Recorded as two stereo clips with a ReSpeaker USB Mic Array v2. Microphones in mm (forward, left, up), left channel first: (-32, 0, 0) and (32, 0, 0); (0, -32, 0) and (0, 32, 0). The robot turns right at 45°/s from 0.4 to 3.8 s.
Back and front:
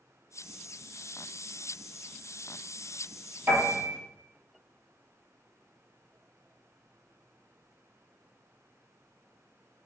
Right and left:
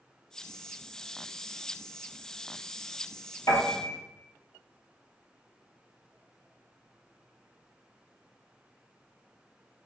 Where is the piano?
55° right, 1.2 m; by 4.0 s 40° right, 1.2 m.